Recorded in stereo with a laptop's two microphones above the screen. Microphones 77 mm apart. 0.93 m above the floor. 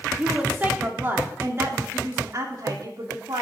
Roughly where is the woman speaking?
Centre.